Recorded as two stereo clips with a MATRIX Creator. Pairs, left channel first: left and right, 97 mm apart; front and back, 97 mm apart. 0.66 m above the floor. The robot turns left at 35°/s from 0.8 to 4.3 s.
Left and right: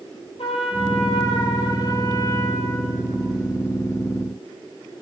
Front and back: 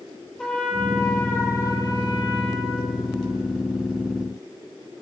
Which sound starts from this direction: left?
A trumpet, at 0.4 s.